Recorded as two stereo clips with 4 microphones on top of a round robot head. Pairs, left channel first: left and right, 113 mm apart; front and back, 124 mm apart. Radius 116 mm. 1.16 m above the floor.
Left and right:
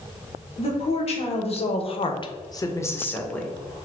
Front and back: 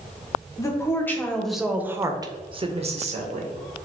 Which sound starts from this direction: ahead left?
A woman speaking, at 0.6 s.